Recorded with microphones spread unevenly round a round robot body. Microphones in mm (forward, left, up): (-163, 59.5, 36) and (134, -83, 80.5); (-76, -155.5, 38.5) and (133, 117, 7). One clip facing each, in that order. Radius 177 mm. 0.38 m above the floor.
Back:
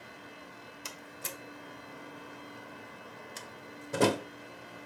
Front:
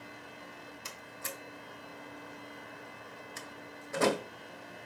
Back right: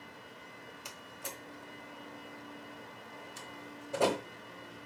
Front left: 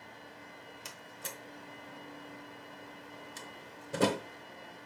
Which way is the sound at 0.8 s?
115° left.